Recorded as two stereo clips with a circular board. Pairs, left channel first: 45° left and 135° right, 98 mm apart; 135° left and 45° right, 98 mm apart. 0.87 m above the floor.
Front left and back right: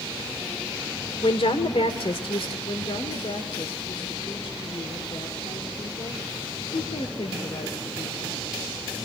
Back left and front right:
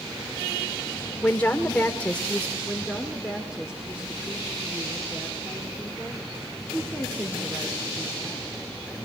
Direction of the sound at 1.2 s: 60° left.